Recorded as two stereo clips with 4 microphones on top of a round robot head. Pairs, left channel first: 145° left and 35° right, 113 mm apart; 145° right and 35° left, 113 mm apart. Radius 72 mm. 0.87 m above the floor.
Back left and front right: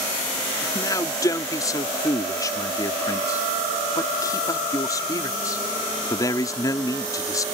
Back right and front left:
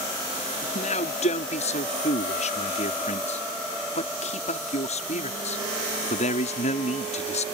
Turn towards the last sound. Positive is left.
turn(degrees=-160)